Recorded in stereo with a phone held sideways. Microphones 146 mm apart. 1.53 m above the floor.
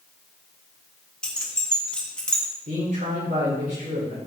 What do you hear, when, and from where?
1.2 s keys jangling: 5° left (ahead or behind), 1.5 m
2.7 s a man speaking: 70° right (ahead or behind), 4.5 m